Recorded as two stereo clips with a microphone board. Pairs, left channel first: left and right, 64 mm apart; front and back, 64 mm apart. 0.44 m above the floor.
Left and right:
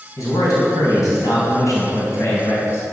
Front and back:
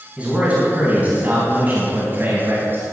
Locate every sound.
0.2 s a man speaking: 110° left, 4 m; by 2.9 s 130° left, 3 m